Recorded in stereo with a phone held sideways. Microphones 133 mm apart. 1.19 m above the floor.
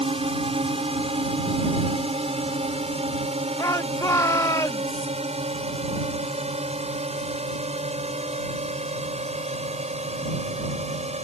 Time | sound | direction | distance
0.0 | a drone | 45° right (ahead or behind) | ?
3.6 | a shout | 25° left (ahead or behind) | ?